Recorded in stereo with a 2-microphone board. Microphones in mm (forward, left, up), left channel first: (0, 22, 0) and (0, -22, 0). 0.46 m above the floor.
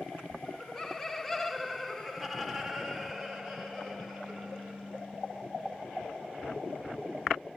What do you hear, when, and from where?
0.5 s laughter: 10° left (ahead or behind), 0.9 m; by 5.0 s 5° right (ahead or behind), 2 m